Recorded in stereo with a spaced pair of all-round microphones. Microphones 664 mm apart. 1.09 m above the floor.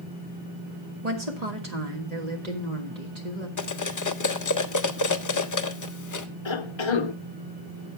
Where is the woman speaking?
70° right (ahead or behind), 1.6 m.